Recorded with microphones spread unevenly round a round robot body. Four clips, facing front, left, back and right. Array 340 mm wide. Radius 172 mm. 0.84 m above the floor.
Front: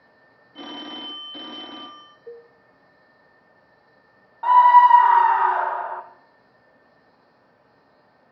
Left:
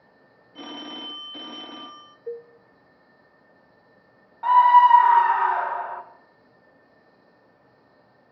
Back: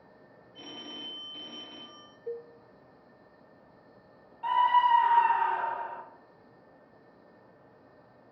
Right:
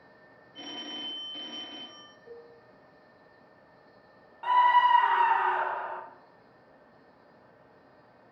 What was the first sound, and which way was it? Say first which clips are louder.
A phone ringing: left 6 dB, front 10 dB; 25° left.